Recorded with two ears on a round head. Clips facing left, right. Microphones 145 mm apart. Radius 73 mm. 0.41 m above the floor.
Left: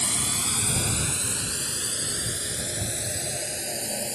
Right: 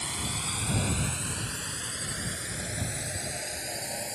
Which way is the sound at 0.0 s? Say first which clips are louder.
Left 3 dB; 65° left (ahead or behind).